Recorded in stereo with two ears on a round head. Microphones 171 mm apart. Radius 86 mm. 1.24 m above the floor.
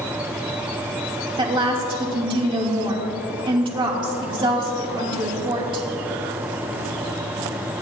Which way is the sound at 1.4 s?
25° right (ahead or behind).